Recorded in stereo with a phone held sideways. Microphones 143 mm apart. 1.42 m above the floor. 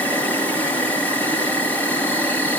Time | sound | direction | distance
0.0 | an insect | 10° left (ahead or behind) | 3.5 m